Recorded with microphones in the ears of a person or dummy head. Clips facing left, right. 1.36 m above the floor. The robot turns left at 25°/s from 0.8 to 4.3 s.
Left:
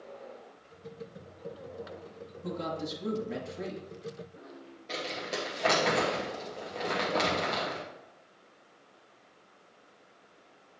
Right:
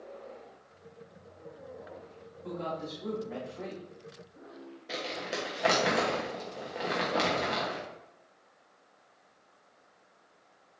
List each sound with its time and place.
2.4 s a woman speaking: 55° left, 2 m; by 3.8 s 20° left, 2 m
4.9 s crumpling: 10° right (ahead or behind), 1.2 m